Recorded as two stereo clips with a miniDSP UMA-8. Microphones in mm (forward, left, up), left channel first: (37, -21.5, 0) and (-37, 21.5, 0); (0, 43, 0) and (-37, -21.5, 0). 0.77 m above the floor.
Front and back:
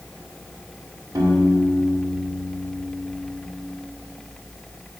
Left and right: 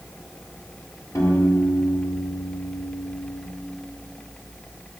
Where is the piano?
100° left, 1.4 m.